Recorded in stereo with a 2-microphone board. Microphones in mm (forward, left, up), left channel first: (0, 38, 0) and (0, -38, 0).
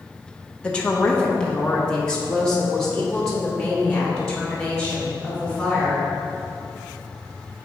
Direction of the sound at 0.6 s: 15° left (ahead or behind).